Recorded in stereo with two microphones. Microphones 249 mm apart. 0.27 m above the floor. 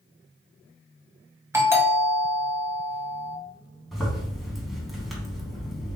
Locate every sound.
1.5 s a doorbell: 10° right (ahead or behind), 1.9 m
3.9 s a zipper: centre (ahead or behind), 2.5 m